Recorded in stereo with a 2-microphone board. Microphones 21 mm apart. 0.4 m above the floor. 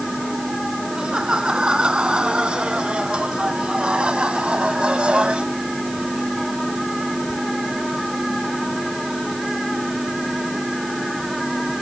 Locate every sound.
0.9 s laughter: 45° right (ahead or behind); by 5.5 s 65° right (ahead or behind)